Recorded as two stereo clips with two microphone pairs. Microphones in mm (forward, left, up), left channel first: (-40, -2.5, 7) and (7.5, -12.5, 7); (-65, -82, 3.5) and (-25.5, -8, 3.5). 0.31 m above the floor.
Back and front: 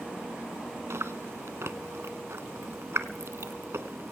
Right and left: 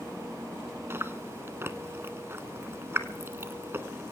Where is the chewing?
Straight ahead, 1.0 m.